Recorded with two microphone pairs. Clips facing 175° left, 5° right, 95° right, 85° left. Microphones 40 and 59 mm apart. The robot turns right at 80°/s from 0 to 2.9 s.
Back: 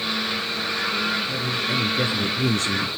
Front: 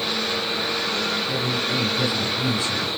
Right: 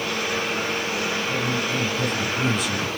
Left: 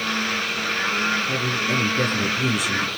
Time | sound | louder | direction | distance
1.3 | a man speaking | front 1 dB, left 1 dB | 65° left | 5 m